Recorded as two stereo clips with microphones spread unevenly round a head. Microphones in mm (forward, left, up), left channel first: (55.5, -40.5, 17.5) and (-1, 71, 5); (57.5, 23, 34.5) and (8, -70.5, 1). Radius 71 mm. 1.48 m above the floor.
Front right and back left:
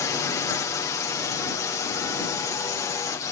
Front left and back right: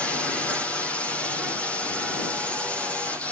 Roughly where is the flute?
I don't hear a flute.